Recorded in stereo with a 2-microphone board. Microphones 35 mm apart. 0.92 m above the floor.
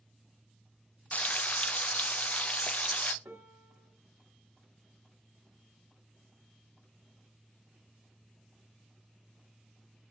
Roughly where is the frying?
Left.